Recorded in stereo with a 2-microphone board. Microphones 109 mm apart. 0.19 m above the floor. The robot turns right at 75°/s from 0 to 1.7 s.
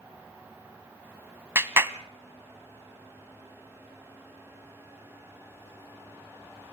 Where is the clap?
25° right (ahead or behind), 0.8 m.